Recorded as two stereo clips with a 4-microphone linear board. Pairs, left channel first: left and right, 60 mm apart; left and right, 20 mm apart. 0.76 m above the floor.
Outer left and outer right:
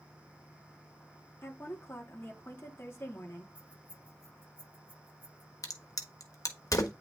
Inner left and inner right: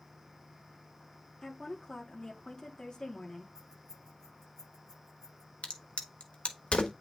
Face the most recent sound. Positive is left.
turn(degrees=70)  # may be behind; listen again after turning